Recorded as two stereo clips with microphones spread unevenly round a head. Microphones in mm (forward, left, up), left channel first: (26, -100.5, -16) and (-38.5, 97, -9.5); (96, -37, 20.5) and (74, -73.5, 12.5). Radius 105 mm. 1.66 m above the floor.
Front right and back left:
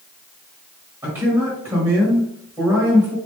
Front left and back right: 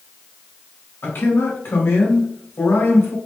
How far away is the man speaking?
About 2 m.